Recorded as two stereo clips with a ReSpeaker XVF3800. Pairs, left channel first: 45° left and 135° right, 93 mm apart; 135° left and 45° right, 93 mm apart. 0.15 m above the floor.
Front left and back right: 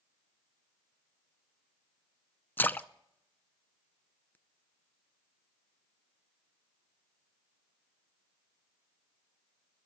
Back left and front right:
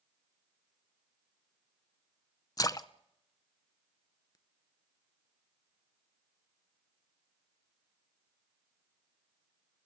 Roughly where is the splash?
Left.